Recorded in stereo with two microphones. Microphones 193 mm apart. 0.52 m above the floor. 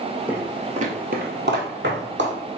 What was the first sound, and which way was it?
Footsteps, 10° right (ahead or behind).